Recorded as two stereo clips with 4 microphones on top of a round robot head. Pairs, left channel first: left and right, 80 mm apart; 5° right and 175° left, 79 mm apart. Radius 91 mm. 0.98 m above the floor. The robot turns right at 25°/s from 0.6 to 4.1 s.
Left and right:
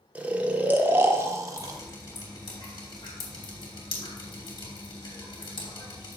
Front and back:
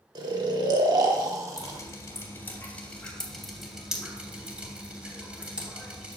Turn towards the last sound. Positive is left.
turn(degrees=100)